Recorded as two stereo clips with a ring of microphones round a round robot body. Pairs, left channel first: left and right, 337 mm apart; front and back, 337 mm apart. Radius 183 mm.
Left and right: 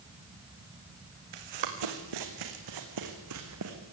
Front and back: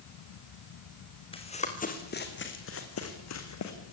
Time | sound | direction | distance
1.3 | running footsteps | 75° right | 3.5 m